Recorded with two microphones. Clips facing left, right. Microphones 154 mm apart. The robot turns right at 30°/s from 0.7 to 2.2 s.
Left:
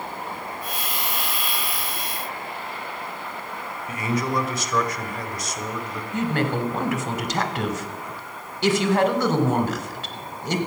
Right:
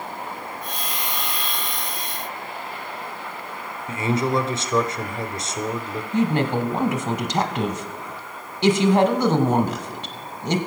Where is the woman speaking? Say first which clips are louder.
Right 3 dB; 20° right (ahead or behind), 1.0 m.